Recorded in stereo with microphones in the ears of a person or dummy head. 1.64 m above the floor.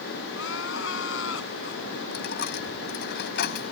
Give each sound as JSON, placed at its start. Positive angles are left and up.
{"t": 0.3, "sound": "crying", "side_deg": 75}
{"t": 2.1, "sound": "a dropped coin", "side_deg": 55}